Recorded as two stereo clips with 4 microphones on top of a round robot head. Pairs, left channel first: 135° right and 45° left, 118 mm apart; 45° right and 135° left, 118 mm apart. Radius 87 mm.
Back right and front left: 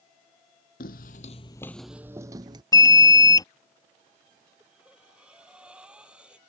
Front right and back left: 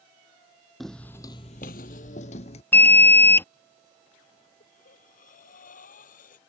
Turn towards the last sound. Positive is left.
turn(degrees=-35)